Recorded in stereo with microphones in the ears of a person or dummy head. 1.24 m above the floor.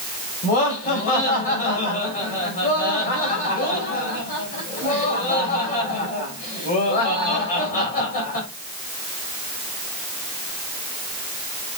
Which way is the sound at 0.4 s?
40° left (ahead or behind).